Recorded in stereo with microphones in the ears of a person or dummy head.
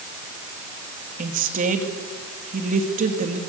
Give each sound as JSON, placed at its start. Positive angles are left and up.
{"t": 1.2, "sound": "a woman speaking", "side_deg": -45, "distance_m": 2.5}